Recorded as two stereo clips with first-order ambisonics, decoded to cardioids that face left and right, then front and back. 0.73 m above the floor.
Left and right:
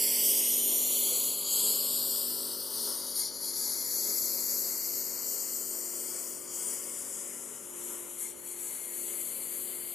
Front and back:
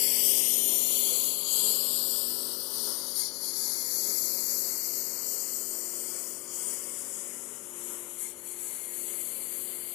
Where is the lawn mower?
5° right; by 10.0 s 25° left.